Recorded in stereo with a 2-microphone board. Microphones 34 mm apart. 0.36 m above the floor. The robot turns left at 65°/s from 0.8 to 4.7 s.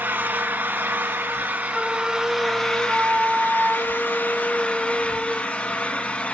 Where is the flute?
5° left, 0.5 m; by 5.5 s 175° left, 0.5 m.